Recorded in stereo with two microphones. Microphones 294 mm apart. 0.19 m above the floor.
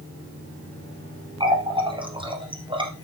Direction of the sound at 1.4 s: 15° right (ahead or behind).